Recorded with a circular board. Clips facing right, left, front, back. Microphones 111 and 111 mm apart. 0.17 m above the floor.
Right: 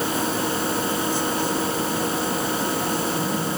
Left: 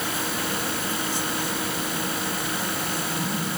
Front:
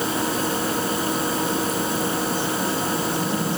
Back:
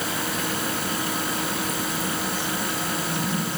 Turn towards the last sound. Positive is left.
No sound to turn to.